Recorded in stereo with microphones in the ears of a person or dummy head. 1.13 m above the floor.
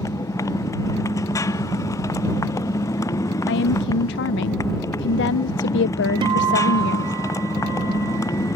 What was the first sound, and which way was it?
A motorcycle, 15° left (ahead or behind).